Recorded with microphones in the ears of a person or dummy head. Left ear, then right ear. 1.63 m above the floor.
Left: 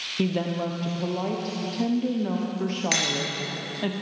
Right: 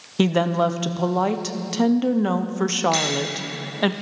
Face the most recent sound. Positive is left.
turn(degrees=60)  # may be behind; listen again after turning